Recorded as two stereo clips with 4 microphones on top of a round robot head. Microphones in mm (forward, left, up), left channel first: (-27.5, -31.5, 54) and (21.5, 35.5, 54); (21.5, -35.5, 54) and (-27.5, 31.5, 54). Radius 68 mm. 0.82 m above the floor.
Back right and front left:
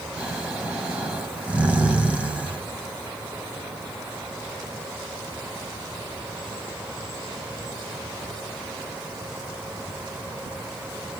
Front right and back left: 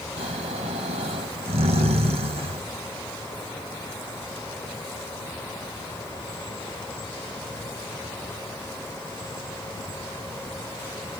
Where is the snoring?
130° left, 2 m.